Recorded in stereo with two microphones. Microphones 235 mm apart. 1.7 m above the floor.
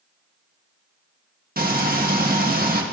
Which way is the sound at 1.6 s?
40° right (ahead or behind).